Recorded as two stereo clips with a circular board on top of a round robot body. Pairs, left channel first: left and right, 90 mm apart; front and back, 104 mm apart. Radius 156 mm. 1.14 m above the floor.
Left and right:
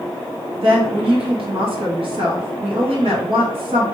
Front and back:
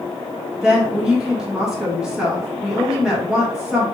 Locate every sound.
0.6 s a woman speaking: 95° right, 1.7 m